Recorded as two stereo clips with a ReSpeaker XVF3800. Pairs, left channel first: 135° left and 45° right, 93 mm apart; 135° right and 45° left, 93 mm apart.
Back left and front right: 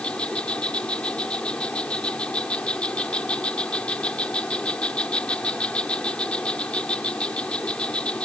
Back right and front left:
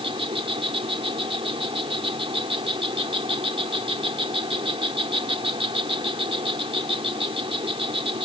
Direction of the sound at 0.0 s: 55° left.